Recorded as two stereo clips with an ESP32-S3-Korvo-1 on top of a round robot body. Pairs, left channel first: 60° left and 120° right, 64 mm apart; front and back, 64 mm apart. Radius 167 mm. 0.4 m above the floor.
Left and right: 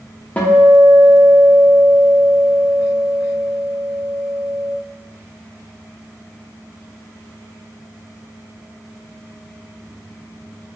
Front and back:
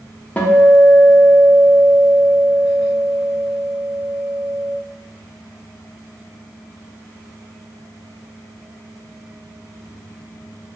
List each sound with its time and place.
0.4 s a guitar: 30° left, 0.8 m